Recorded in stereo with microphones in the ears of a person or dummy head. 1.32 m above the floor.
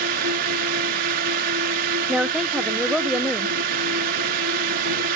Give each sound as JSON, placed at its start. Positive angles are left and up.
{"t": 0.0, "sound": "a drone", "side_deg": -45}
{"t": 2.1, "sound": "a woman speaking", "side_deg": -5}